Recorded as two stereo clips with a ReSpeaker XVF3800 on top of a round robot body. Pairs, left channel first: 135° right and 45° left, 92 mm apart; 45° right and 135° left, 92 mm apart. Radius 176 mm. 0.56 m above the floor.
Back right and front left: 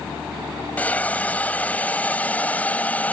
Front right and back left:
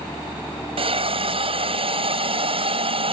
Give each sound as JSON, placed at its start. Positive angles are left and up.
{"t": 0.8, "sound": "a hiss", "azimuth_deg": 150}